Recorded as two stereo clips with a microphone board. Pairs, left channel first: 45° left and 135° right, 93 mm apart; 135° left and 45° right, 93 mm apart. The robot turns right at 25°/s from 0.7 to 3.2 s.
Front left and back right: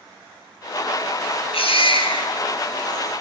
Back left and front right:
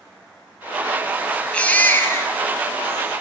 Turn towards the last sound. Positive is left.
turn(degrees=100)